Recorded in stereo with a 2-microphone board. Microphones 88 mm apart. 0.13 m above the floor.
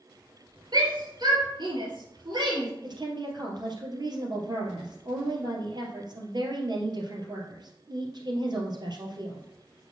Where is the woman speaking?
55° right (ahead or behind), 3 m.